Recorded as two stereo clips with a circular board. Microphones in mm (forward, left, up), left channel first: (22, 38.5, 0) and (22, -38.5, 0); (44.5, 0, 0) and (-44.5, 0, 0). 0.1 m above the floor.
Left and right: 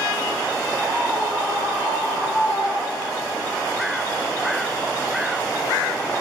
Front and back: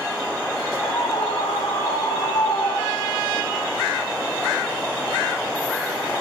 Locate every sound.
0.8 s a scream: 30° right, 5.5 m; by 3.2 s straight ahead, 5.5 m